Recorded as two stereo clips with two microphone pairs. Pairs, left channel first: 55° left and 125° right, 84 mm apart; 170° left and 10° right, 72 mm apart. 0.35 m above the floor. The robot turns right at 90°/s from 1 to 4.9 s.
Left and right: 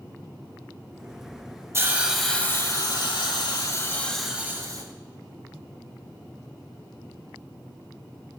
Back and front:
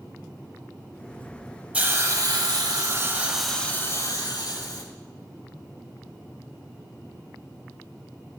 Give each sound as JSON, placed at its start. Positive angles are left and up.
{"t": 1.7, "sound": "a hiss", "azimuth_deg": -75, "distance_m": 0.8}